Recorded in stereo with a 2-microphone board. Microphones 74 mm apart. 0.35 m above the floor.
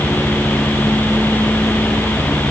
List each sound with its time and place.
Only background noise.